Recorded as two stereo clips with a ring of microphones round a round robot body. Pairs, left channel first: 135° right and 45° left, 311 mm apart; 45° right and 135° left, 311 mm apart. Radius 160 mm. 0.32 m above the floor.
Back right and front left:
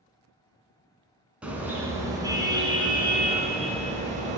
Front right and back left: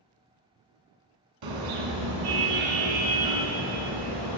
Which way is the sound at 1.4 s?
130° left.